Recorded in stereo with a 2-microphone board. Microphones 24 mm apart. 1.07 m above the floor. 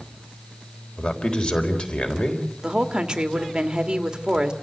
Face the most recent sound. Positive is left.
turn(degrees=-25)  # may be behind; listen again after turning